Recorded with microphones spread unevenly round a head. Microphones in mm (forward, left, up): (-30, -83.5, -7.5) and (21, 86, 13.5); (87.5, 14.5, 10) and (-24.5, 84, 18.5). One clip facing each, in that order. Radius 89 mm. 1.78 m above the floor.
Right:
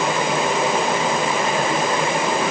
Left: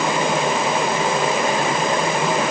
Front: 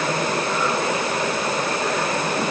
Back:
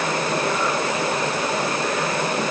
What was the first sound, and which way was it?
Only background noise.